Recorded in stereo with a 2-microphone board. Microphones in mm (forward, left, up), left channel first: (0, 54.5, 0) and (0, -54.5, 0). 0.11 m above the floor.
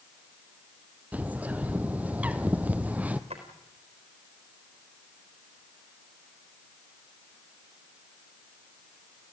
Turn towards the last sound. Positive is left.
turn(degrees=-75)  # may be behind; listen again after turning